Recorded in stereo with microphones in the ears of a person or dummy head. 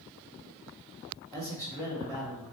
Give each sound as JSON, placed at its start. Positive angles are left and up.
{"t": 1.3, "sound": "a man speaking", "side_deg": 25, "distance_m": 2.0}